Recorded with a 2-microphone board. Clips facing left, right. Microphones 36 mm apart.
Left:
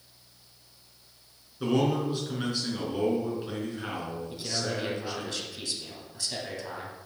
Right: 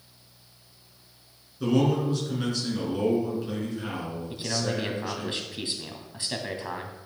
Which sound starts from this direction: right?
A man speaking, at 4.3 s.